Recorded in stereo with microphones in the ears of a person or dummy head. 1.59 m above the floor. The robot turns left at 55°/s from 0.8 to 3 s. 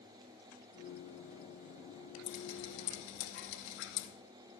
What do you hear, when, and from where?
2.3 s dripping: 120° left, 2.5 m; by 4.1 s 80° left, 2.5 m